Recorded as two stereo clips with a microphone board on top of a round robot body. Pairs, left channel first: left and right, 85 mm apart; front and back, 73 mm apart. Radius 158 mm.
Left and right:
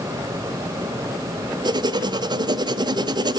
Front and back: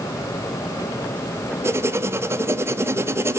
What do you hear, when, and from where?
1.6 s writing: 125° right, 0.8 m